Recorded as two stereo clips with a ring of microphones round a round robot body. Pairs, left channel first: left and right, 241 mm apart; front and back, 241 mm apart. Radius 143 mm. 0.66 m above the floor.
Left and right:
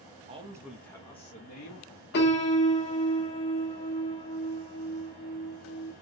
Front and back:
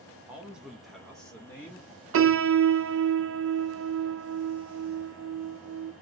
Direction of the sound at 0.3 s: 105° right.